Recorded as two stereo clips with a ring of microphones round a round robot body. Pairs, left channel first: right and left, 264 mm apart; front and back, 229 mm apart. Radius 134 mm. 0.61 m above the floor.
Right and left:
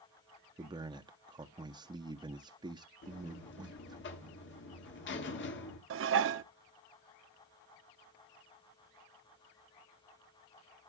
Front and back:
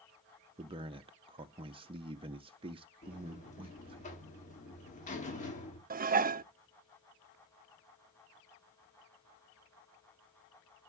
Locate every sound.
0.6 s a man speaking: 145° left, 0.6 m
3.0 s a buzzer: 55° right, 1.6 m
5.9 s dishes clattering: 130° left, 0.5 m